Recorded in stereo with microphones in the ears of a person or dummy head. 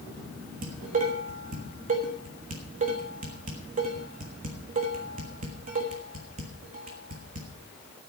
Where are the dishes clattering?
35° right (ahead or behind), 1.5 m.